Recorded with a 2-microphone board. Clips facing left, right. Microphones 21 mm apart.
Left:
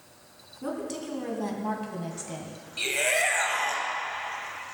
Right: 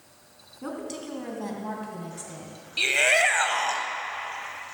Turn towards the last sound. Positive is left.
turn(degrees=-30)  # may be behind; listen again after turning